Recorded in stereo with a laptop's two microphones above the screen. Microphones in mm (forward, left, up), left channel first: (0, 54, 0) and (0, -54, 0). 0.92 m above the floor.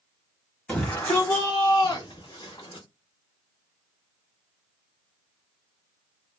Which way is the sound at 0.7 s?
10° left (ahead or behind).